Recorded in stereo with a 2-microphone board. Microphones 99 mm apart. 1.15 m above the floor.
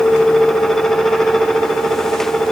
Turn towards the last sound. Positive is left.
No sound to turn to.